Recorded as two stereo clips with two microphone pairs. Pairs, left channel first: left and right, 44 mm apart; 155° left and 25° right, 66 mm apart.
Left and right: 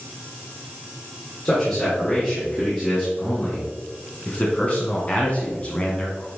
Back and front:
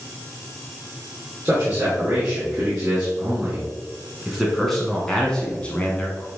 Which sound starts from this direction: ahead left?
A man speaking, at 1.4 s.